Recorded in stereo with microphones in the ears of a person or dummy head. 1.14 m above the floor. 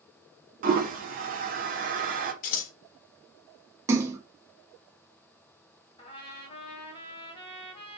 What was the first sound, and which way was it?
A toilet flushing, 45° right (ahead or behind).